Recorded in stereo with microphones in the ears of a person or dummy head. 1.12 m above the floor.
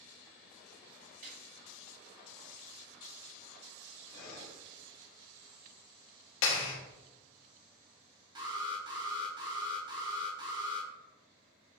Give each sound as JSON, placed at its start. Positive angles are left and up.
{"t": 1.2, "sound": "a gunshot", "side_deg": -50, "distance_m": 1.5}
{"t": 4.1, "sound": "breathing", "side_deg": 70, "distance_m": 1.4}
{"t": 6.4, "sound": "a clap", "side_deg": 75, "distance_m": 1.1}
{"t": 8.3, "sound": "an alarm", "side_deg": -25, "distance_m": 0.9}